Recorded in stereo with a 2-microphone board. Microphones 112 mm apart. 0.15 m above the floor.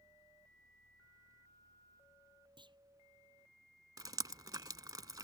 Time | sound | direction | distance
2.6 | a clunk | 45° right (ahead or behind) | ?
4.0 | dripping | 35° right (ahead or behind) | ?